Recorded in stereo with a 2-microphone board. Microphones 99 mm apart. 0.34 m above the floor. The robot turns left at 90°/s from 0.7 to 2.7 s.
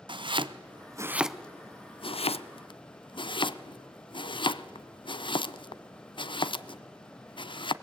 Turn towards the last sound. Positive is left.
turn(degrees=55)  # may be behind; listen again after turning